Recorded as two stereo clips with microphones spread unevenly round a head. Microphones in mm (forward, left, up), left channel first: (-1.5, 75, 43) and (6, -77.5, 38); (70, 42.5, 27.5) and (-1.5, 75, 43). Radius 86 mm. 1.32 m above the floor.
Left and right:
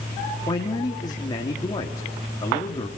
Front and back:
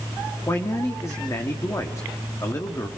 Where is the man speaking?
30° left, 3 m.